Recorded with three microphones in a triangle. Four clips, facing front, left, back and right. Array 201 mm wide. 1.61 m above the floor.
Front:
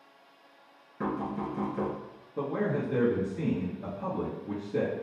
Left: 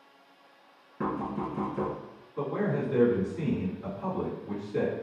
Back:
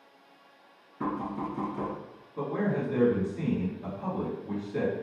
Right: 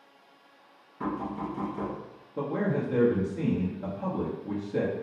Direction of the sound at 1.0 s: 65° left.